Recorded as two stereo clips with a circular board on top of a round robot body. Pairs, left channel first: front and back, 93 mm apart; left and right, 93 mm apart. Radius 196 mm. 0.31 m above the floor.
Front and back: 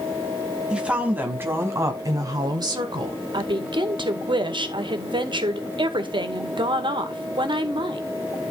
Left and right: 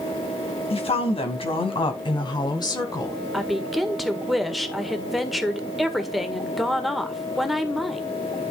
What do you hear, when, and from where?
0.7 s a woman speaking: 100° left, 3.5 m; by 3.2 s 145° left, 3.5 m
3.3 s a woman speaking: straight behind, 2 m